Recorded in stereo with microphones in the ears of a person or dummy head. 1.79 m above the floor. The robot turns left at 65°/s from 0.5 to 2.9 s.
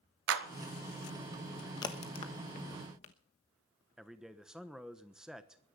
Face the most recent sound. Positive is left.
turn(degrees=-5)  # may be behind; listen again after turning